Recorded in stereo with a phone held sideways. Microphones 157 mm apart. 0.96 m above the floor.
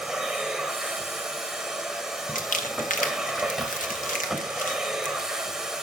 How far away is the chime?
No chime in this recording.